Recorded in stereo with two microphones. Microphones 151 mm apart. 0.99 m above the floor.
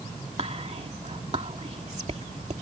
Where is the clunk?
No clunk in this recording.